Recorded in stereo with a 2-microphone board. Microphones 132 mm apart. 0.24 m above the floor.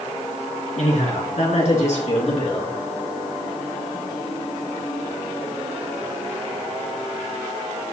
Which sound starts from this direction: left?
A man speaking, at 0.8 s.